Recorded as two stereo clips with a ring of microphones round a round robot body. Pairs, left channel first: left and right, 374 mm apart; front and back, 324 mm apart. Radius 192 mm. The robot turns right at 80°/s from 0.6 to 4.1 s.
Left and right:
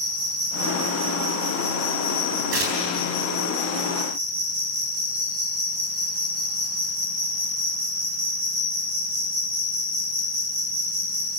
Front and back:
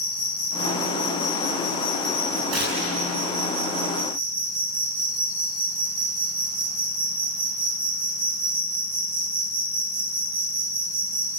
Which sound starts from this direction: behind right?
Tearing paper, at 2.5 s.